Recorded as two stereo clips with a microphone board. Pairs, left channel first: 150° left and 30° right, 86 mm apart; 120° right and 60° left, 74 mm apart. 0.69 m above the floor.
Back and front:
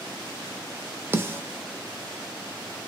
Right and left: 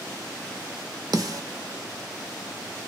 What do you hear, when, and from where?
1.1 s a snare drum: 30° left, 0.6 m